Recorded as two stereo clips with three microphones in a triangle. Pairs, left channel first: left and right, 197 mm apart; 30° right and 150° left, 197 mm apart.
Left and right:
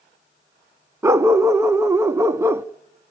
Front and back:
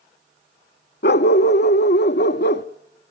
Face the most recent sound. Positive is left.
turn(degrees=-15)